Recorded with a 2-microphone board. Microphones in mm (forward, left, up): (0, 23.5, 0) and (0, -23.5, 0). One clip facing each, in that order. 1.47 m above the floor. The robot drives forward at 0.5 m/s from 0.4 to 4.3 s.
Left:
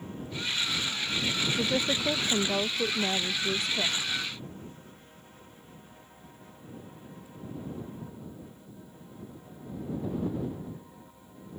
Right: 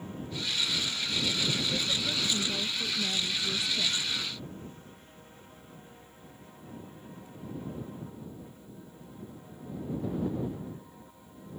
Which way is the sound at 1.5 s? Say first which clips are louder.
Left 3 dB; 85° left.